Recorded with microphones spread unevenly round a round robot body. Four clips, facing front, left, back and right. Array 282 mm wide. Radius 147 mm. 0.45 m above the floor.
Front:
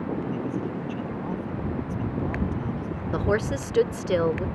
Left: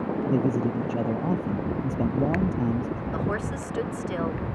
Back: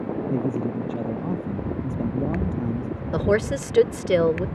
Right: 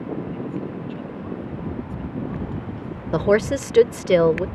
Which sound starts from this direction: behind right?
A woman speaking, at 3.1 s.